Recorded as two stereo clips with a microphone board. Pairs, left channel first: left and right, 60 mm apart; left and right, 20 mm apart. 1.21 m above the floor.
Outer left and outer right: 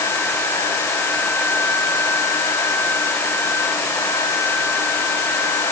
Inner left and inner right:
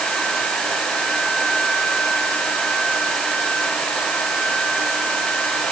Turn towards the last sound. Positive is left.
No sound to turn to.